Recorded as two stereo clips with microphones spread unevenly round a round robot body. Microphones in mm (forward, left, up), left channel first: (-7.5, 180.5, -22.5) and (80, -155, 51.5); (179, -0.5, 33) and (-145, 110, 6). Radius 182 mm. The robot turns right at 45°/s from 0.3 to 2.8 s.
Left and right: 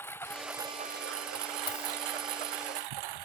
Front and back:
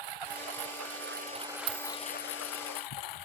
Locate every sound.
0.0 s a lawn mower: 170° right; by 3.3 s 60° right
1.7 s a dropped coin: 170° left; by 2.0 s 175° right